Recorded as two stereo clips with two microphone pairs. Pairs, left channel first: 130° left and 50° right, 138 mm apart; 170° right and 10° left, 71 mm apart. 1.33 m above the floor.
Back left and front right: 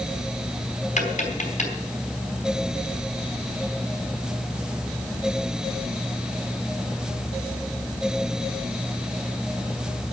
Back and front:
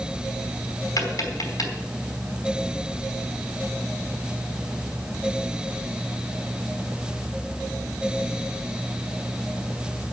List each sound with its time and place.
1.0 s tapping: 160° left, 4.5 m